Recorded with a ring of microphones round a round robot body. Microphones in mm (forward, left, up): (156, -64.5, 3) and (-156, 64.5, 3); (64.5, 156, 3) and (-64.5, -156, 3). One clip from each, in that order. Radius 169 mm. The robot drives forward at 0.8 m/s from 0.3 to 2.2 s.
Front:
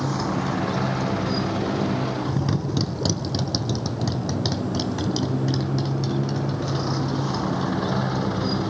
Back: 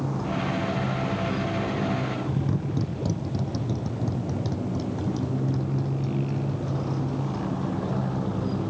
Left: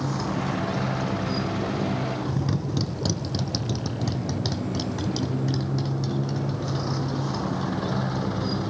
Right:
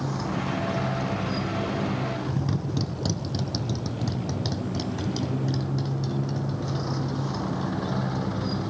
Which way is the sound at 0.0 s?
15° right.